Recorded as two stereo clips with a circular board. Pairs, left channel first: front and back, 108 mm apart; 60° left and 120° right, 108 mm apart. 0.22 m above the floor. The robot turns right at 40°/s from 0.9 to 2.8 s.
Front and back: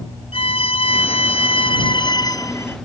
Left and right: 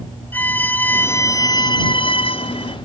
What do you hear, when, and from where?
0.3 s a violin: 10° right; by 2.8 s 65° left